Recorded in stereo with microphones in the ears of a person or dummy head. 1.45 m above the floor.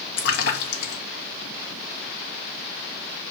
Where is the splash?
65° left (ahead or behind), 2 m.